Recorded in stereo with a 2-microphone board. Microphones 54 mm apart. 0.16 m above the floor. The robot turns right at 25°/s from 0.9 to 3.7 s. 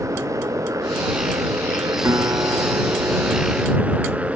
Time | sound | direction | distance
0.0 | a motorcycle | 80° right | ?
2.0 | a guitar | 100° right | ?